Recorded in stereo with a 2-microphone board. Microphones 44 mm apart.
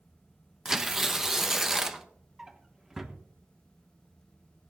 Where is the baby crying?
I don't hear a baby crying.